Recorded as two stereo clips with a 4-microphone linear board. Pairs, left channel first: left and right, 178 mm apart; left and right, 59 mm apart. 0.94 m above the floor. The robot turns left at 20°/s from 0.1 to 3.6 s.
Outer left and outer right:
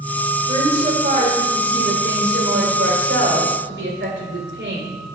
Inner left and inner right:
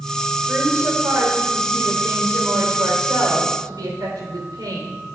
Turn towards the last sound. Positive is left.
turn(degrees=-95)